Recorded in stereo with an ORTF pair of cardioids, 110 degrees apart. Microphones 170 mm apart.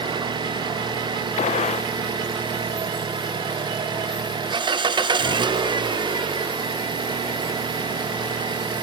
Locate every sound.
0.0 s an engine running: 25° right, 1.2 m
1.4 s a gunshot: 45° left, 1.5 m